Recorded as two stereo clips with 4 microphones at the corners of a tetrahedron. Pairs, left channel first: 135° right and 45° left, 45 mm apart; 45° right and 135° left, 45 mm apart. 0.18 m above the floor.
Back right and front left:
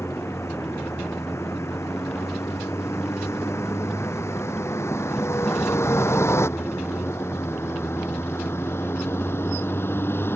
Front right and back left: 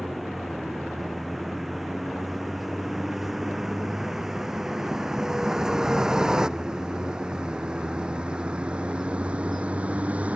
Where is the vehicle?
135° right; by 10.4 s 170° right.